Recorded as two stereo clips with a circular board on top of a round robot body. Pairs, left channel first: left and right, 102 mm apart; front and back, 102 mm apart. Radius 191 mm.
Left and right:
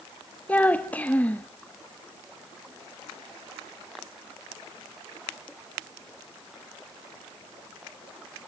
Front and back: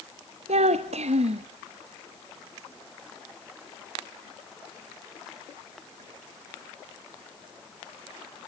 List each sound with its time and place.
0.5 s a child speaking: 165° left, 0.6 m